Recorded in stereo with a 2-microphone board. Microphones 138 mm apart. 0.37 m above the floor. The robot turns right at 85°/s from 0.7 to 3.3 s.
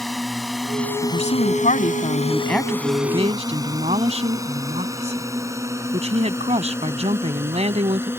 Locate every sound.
0.0 s a drone: centre (ahead or behind); by 8.2 s 15° right (ahead or behind)
1.0 s a woman speaking: 40° left; by 8.1 s 125° right